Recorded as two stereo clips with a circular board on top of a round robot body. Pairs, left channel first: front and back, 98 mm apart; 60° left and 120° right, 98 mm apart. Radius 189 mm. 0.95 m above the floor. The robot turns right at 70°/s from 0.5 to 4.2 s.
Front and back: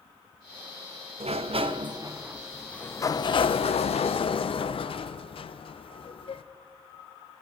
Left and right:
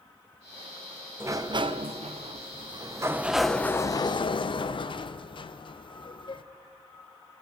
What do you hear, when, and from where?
1.2 s a sliding door: 175° left, 0.6 m; by 6.4 s 25° left, 0.6 m